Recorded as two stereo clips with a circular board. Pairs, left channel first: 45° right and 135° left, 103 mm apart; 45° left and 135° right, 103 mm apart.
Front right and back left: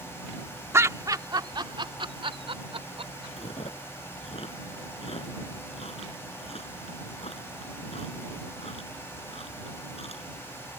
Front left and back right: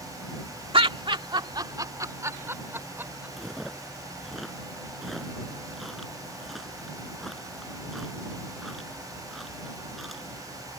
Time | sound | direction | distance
0.7 | laughter | 165° right | ?
3.4 | chewing | 45° right | ?